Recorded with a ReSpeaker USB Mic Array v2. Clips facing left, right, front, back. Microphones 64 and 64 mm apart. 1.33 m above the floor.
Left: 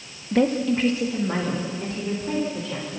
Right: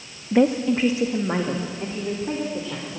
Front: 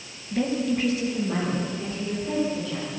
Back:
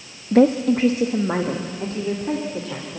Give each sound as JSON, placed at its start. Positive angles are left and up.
{"t": 0.3, "sound": "a woman speaking", "azimuth_deg": -170, "distance_m": 0.6}